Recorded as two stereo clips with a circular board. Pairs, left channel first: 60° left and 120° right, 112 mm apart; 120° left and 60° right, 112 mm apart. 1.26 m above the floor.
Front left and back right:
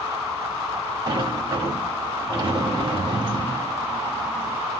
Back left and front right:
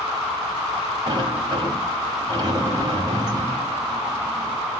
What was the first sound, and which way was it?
A sliding door, 95° right.